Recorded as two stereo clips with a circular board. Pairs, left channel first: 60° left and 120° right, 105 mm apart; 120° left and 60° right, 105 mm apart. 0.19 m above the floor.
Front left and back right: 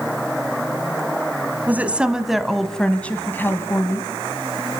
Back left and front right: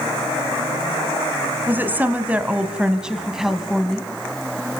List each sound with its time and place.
1.7 s a woman speaking: 85° right, 1.5 m; by 4.1 s 30° left, 1.7 m